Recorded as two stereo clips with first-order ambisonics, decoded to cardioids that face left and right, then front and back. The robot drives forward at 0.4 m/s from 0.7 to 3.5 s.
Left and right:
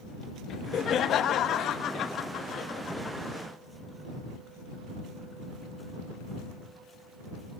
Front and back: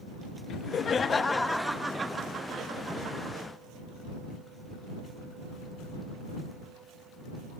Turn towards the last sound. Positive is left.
turn(degrees=155)